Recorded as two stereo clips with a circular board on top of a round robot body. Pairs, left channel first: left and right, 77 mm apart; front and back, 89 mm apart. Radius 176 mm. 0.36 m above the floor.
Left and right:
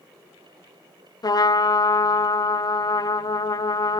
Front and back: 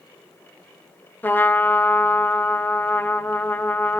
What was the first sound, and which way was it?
A trumpet, 65° left.